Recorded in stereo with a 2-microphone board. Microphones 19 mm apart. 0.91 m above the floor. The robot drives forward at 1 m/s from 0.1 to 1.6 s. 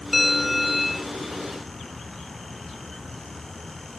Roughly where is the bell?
Centre.